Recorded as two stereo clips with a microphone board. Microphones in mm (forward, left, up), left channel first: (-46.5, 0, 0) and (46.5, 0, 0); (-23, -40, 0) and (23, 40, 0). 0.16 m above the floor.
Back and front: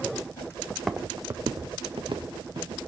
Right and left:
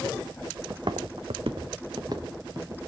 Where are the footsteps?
100° left, 0.7 m; by 2.8 s 5° left, 1.7 m.